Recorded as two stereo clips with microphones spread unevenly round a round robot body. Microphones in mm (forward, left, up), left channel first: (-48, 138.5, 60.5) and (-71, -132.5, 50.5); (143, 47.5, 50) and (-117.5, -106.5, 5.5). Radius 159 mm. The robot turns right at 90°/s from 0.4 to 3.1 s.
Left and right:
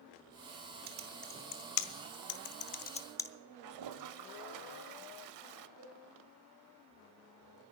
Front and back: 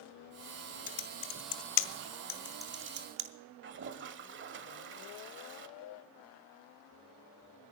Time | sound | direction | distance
0.9 | typing on a keyboard | 35° right | 0.9 m
3.6 | a toilet flushing | 95° right | 0.6 m
5.8 | a cowbell | 135° right | 5.5 m